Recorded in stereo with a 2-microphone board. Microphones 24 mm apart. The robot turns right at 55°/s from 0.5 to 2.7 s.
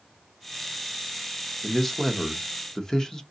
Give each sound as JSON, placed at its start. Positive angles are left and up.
{"t": 1.6, "sound": "a man speaking", "side_deg": 0, "distance_m": 0.7}